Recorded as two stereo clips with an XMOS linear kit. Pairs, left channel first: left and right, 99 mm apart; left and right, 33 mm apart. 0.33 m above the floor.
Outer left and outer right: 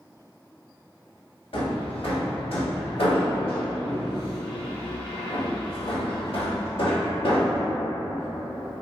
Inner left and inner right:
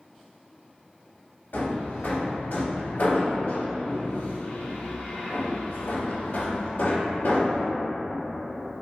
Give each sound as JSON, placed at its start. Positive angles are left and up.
{"t": 1.5, "sound": "hammering", "side_deg": 65, "distance_m": 0.7}